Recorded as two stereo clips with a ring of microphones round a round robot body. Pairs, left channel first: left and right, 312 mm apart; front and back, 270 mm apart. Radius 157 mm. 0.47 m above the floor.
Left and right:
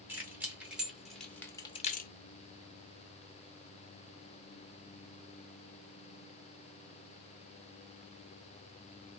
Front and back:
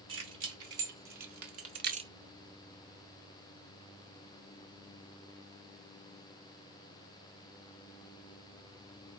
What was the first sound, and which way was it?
Keys jangling, 175° right.